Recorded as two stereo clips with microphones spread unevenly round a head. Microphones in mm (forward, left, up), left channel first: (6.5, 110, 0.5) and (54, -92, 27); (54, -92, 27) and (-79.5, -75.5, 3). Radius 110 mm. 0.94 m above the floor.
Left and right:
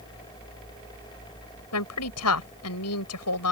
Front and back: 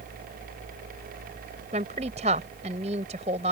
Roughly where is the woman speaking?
Left.